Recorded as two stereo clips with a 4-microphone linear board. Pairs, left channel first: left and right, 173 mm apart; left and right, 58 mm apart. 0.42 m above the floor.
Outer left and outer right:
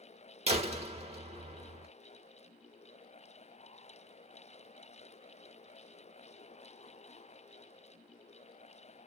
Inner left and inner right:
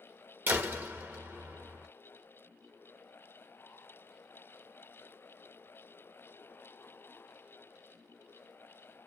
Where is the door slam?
35° right (ahead or behind), 0.7 m.